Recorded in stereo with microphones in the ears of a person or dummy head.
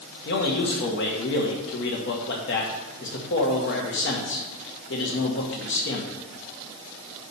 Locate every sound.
0.2 s a man speaking: 50° left (ahead or behind), 1.6 m